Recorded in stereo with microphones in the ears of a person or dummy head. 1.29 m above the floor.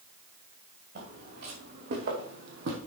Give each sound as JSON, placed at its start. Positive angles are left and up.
{"t": 0.9, "sound": "footsteps", "side_deg": -55, "distance_m": 5.0}